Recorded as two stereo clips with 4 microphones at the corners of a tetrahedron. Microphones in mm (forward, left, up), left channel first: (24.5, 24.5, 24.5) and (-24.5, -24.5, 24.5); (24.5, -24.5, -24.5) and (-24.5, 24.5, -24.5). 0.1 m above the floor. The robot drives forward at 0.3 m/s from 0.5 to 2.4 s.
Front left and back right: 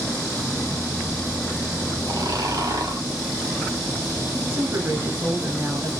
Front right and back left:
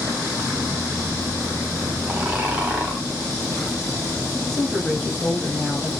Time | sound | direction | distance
2.1 | snoring | 155° right | 0.9 m
4.5 | a woman speaking | 130° right | 1.8 m